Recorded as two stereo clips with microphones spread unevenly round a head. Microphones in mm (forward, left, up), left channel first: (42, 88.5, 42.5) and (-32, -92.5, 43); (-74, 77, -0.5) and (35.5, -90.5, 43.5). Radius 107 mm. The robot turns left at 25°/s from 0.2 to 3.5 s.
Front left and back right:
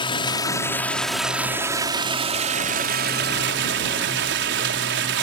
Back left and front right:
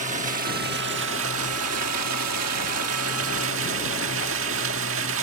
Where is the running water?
Straight ahead; by 5.2 s 80° right.